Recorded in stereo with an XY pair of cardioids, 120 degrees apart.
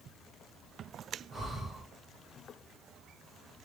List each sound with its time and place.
1.3 s breathing: 25° right, 1.9 m